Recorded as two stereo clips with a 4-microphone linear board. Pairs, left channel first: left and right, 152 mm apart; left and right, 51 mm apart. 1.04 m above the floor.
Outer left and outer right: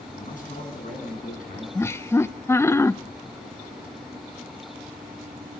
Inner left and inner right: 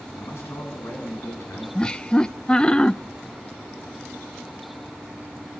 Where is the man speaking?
60° left (ahead or behind), 7.5 m.